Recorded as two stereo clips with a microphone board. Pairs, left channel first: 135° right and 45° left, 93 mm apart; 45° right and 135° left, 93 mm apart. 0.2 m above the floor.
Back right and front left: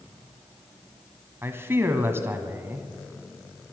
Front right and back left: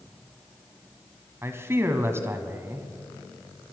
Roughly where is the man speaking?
Left.